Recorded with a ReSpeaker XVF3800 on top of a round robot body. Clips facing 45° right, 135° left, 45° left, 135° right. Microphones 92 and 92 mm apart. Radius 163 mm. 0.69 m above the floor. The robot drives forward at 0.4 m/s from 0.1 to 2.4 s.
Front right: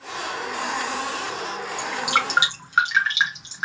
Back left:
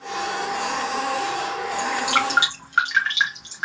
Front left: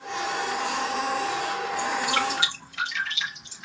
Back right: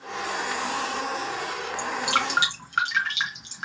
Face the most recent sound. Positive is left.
turn(degrees=-125)